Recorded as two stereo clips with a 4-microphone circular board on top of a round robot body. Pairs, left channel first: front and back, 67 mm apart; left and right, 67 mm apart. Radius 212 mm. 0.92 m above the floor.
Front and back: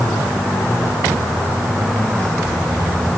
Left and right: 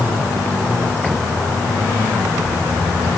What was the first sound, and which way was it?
Only background noise.